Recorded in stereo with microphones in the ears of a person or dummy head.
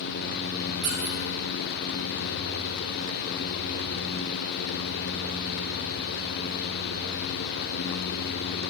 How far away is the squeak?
About 0.9 m.